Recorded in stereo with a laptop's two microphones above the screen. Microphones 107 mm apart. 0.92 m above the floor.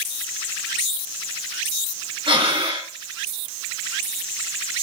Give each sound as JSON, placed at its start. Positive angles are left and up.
{"t": 2.3, "sound": "breathing", "side_deg": -60, "distance_m": 1.8}